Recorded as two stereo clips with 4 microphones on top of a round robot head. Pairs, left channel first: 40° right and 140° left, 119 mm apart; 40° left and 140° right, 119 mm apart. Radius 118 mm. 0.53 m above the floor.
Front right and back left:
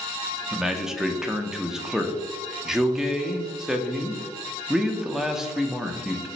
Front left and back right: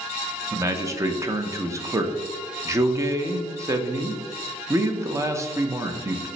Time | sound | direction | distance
0.5 | a man speaking | 140° right | 0.6 m